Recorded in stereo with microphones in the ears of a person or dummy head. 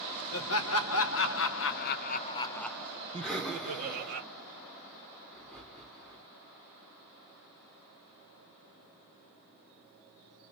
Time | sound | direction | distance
0.3 | laughter | 70° left (ahead or behind) | 1.3 m
3.2 | breathing | 10° left (ahead or behind) | 1.5 m